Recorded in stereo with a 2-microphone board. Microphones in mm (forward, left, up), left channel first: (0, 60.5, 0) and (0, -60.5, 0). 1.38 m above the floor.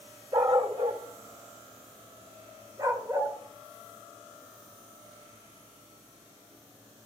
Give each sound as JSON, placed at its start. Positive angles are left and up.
{"t": 0.3, "sound": "a dog barking", "side_deg": -50, "distance_m": 1.5}